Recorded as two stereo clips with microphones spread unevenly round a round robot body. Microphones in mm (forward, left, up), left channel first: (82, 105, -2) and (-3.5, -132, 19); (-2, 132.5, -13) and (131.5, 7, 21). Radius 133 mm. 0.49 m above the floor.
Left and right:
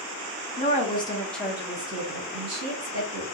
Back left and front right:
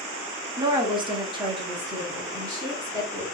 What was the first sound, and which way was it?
A woman speaking, 30° left.